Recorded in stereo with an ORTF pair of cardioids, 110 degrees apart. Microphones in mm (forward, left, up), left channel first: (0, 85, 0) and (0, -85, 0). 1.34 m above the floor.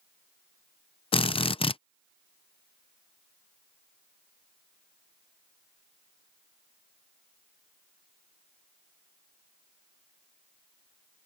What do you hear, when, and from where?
1.1 s a drill: 35° left